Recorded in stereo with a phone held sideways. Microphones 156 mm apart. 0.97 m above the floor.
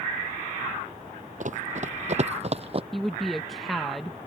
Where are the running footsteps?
55° right (ahead or behind); by 2.8 s 40° right (ahead or behind).